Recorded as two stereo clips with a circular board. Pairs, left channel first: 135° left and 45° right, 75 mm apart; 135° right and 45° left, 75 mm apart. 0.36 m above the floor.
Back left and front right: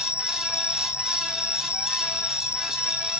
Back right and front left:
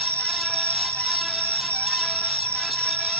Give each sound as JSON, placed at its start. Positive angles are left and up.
{"t": 0.0, "sound": "an insect", "azimuth_deg": 95, "distance_m": 1.2}